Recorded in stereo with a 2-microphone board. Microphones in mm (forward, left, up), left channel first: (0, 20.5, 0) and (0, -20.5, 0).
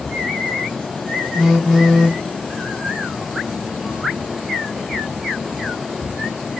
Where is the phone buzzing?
5° left (ahead or behind), 1.2 m.